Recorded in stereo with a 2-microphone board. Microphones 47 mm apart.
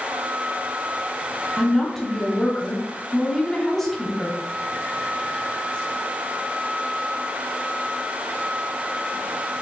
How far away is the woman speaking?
About 1.2 m.